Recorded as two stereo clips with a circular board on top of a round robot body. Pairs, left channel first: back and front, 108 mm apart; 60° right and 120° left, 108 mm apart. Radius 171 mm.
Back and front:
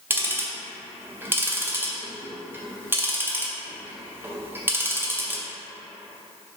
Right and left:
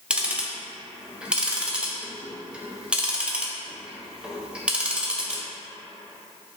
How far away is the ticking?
About 0.7 m.